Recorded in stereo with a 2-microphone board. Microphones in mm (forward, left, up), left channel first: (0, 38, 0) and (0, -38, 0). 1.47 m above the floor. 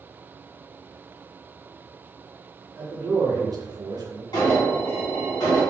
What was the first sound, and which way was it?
A man speaking, 20° right (ahead or behind).